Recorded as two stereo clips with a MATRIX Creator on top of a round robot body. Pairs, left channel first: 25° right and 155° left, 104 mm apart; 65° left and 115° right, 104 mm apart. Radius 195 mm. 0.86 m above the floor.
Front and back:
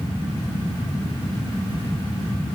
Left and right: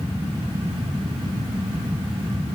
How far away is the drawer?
No drawer in this recording.